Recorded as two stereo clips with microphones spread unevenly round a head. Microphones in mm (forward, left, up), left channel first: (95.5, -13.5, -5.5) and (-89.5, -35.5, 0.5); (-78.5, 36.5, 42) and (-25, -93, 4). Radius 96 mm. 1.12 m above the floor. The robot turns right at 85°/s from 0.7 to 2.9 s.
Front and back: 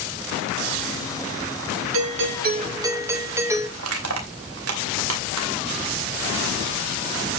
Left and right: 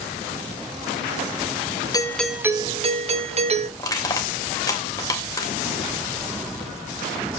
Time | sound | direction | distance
1.9 | a doorbell | straight behind | 1.6 m
3.8 | crushing | 175° left | 2.5 m